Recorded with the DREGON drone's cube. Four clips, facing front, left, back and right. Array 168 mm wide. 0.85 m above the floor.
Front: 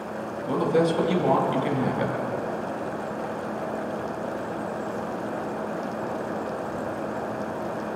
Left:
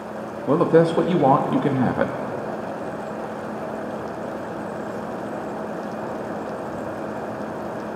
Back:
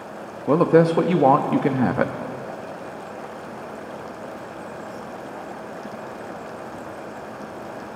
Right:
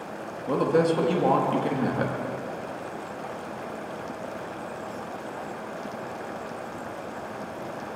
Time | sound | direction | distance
0.5 | a woman speaking | 150° left | 1.2 m